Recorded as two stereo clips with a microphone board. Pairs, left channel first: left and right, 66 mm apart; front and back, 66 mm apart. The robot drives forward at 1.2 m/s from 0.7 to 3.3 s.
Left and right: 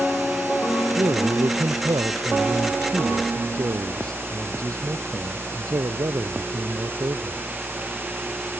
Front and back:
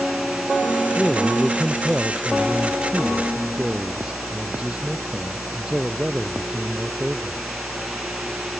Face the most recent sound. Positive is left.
turn(degrees=-105)